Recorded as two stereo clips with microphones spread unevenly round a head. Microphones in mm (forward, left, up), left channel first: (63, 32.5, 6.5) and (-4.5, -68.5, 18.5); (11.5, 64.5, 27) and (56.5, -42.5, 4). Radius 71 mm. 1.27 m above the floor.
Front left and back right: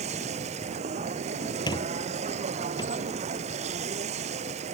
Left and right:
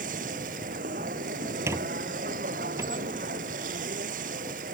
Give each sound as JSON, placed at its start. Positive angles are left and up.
{"t": 0.0, "sound": "a machine running", "azimuth_deg": -95}
{"t": 1.7, "sound": "a squeak", "azimuth_deg": 0}